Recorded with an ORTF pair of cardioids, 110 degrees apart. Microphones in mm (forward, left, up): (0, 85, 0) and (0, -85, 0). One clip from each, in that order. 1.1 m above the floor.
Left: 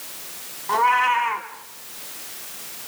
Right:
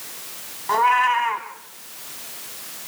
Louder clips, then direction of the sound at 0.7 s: Right 1 dB; 15° right.